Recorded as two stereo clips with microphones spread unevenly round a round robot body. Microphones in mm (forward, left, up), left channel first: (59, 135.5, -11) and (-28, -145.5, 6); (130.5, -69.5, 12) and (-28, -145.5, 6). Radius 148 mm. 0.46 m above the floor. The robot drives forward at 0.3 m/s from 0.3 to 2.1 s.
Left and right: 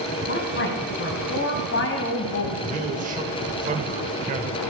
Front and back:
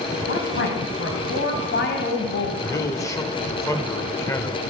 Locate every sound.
0.3 s a woman speaking: 25° left, 3 m; by 2.5 s 30° left, 2.5 m
2.6 s a man speaking: 45° right, 1.5 m